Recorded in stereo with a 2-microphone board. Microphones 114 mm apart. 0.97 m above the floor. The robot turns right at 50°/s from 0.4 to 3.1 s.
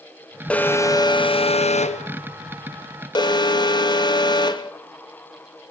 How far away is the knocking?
I don't hear knocking.